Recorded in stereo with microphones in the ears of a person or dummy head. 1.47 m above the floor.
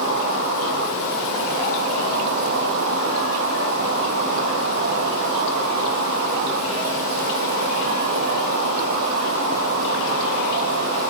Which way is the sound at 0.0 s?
70° right (ahead or behind).